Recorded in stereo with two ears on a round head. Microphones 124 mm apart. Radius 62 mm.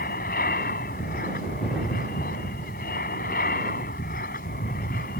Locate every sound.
0.0 s an aircraft: 65° left (ahead or behind)